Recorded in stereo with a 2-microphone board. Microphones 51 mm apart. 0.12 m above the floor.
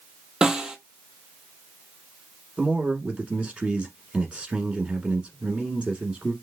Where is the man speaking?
25° right (ahead or behind), 1.2 m.